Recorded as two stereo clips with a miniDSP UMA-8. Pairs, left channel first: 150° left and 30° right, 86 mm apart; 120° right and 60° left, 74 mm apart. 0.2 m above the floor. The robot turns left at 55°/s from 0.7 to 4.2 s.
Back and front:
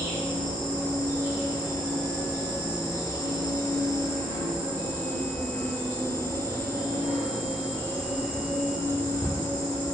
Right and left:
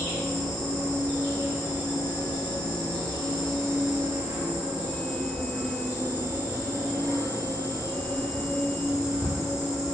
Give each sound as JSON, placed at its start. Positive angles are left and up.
{"t": 0.0, "sound": "an insect", "azimuth_deg": -45, "distance_m": 1.4}